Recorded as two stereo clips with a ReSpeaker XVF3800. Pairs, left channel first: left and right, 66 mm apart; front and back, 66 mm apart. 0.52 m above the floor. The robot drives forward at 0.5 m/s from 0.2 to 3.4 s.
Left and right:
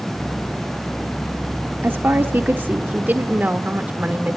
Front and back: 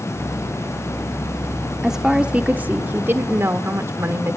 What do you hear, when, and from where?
1.8 s a woman speaking: 100° right, 1.0 m; by 4.4 s 145° right, 1.4 m